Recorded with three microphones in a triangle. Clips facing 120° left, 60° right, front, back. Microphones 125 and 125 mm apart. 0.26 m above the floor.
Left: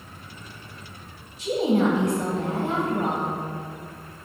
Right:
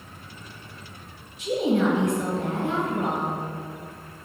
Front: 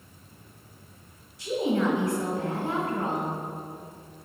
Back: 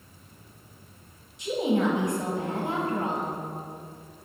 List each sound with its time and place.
1.4 s a woman speaking: 125° left, 1.2 m